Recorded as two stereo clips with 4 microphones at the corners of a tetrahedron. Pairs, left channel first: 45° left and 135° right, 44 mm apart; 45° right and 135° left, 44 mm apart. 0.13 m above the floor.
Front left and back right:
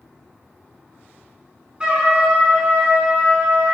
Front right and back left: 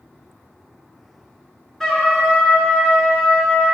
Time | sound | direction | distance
1.8 | a trumpet | 115° right | 0.9 m